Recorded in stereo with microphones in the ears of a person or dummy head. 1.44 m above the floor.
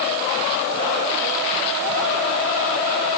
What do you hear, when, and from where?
Only background noise.